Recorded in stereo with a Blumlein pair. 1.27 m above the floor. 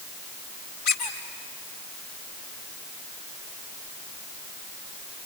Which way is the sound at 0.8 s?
45° left.